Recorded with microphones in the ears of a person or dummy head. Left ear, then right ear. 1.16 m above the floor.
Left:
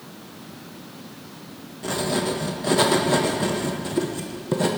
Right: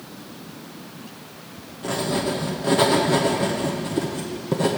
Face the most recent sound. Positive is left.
turn(degrees=10)  # may be behind; listen again after turning